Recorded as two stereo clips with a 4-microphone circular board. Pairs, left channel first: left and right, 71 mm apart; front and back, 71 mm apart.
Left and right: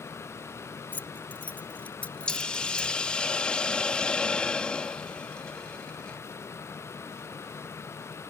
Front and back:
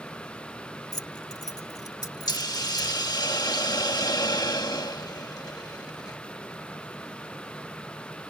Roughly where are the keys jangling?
Ahead left.